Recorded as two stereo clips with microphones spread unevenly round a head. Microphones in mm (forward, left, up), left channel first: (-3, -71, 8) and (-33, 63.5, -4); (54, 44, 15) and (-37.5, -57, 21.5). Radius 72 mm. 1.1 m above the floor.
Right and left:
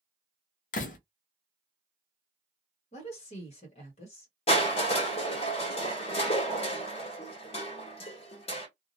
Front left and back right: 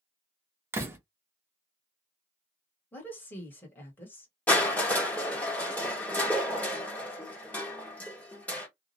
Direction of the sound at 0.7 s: 60° right.